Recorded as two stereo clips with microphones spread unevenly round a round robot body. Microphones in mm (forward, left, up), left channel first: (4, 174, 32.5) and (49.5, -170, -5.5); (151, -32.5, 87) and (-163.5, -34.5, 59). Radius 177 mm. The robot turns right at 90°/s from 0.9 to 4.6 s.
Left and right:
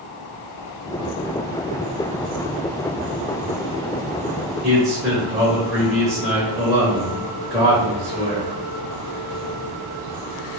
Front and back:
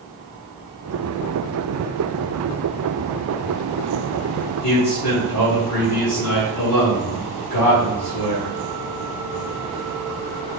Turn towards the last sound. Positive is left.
turn(degrees=0)